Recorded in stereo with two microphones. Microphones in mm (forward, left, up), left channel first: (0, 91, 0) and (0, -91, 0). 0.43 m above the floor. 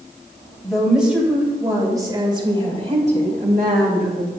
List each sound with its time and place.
0.6 s a woman speaking: centre (ahead or behind), 2.5 m; by 4.3 s 55° right (ahead or behind), 2 m